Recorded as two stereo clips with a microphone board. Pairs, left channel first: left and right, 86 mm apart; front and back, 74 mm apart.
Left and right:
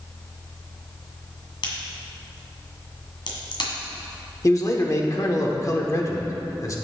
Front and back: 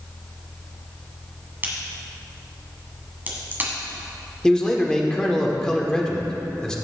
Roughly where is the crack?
Behind left.